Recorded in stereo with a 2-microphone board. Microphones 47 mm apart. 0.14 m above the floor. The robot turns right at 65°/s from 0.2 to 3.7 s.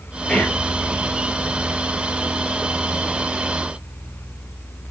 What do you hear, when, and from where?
0.3 s whispering: 20° left (ahead or behind), 4 m; by 0.6 s 40° left (ahead or behind), 4 m